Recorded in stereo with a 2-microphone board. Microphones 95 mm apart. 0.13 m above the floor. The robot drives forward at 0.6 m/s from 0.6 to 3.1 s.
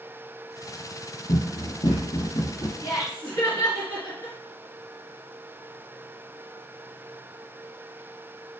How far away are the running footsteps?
About 2 m.